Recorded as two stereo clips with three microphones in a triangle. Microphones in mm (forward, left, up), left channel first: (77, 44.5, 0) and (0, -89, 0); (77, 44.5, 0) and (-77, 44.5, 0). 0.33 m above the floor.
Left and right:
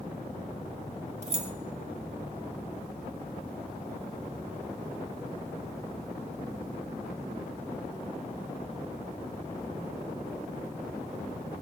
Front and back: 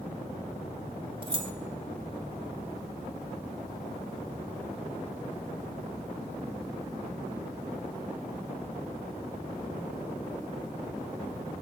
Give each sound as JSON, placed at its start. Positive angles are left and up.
{"t": 1.2, "sound": "keys jangling", "azimuth_deg": -140, "distance_m": 0.7}